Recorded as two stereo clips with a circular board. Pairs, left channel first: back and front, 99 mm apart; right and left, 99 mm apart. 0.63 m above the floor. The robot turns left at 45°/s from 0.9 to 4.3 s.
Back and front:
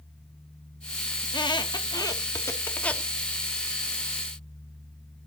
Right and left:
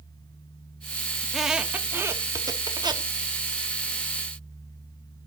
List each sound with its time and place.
1.2 s a squeak: 175° right, 0.7 m; by 3.1 s 100° left, 0.7 m